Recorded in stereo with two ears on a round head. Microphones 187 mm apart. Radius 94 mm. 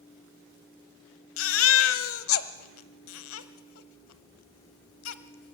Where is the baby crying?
75° left (ahead or behind), 1.0 m.